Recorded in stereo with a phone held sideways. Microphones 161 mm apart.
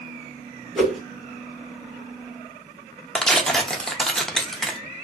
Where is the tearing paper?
5° left (ahead or behind), 0.6 m.